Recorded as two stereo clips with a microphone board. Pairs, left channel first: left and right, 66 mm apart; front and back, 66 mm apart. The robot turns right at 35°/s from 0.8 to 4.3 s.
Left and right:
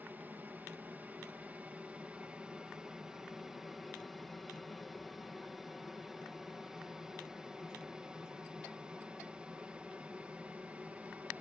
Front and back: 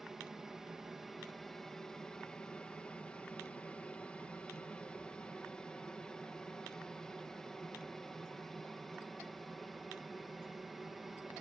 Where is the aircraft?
100° right; by 11.4 s 95° right.